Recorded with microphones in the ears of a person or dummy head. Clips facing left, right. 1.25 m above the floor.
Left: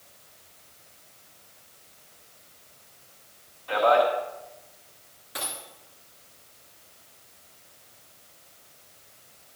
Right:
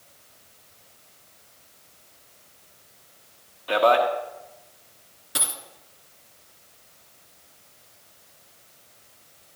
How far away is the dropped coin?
About 1.8 m.